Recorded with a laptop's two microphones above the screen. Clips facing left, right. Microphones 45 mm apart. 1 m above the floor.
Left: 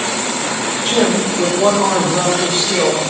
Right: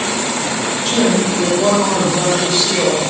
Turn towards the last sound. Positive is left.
turn(degrees=15)  # may be behind; listen again after turning